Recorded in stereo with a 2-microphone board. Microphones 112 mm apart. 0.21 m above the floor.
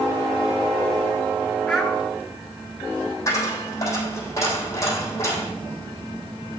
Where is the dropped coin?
30° left (ahead or behind), 3 m.